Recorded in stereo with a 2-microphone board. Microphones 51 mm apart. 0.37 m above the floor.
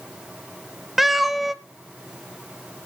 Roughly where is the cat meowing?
Centre.